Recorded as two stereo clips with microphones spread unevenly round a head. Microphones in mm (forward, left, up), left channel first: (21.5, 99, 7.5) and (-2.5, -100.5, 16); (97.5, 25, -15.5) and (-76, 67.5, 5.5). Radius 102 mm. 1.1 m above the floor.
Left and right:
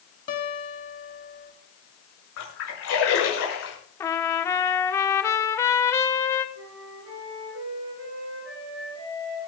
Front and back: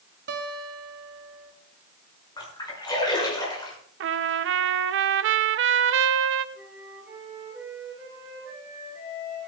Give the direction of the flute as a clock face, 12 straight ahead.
4 o'clock.